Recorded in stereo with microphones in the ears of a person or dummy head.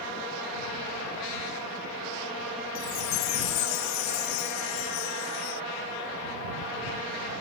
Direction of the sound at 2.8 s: 85° left.